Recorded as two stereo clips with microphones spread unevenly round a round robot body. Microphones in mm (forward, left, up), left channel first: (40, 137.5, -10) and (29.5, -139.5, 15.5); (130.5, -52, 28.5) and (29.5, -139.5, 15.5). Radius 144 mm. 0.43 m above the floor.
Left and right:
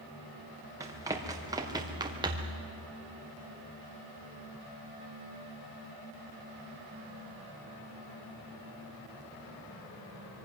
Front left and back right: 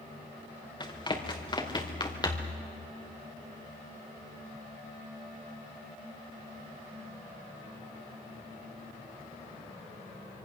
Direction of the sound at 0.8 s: 15° right.